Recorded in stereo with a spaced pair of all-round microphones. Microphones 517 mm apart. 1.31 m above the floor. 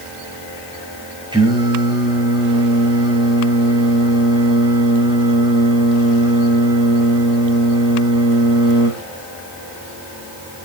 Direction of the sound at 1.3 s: 10° right (ahead or behind).